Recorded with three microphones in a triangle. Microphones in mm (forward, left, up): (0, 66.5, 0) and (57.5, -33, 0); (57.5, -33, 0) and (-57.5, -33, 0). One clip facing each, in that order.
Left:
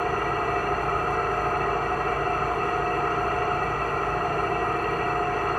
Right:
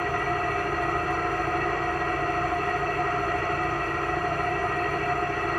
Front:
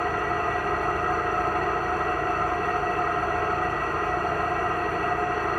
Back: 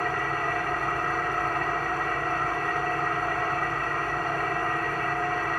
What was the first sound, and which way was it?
An engine running, 75° left.